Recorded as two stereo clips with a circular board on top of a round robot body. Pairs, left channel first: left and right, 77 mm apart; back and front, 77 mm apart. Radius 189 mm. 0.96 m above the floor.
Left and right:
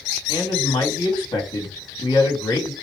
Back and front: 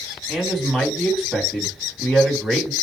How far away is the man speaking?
About 2 m.